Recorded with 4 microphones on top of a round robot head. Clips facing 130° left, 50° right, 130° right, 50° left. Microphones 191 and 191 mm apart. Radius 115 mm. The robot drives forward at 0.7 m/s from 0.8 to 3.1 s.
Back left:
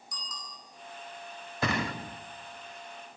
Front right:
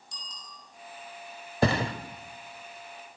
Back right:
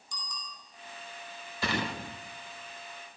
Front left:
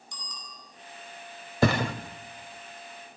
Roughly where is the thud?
Ahead.